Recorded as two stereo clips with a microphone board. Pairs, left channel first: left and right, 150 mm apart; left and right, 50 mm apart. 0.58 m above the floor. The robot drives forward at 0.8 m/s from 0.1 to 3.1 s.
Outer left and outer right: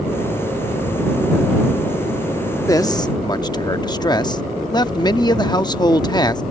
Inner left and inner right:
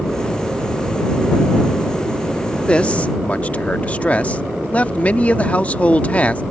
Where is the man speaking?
20° left (ahead or behind); by 6.4 s 30° left (ahead or behind).